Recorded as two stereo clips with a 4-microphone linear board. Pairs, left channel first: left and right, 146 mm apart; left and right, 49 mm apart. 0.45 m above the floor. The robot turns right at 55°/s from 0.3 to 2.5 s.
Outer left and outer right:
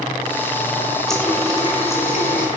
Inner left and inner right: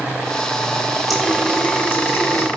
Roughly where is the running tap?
Ahead.